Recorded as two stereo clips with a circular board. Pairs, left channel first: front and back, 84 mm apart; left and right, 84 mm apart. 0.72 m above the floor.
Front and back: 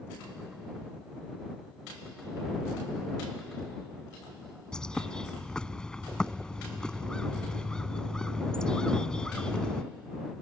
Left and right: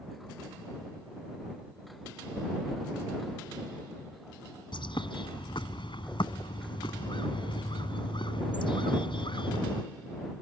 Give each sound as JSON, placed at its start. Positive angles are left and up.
{"t": 4.7, "sound": "a bird", "azimuth_deg": 80}